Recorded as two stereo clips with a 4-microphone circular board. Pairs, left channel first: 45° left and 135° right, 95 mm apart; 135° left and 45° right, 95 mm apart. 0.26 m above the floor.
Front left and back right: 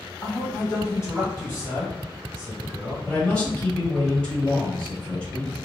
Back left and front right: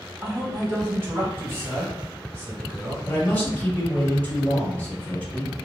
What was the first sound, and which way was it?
A man speaking, 5° left.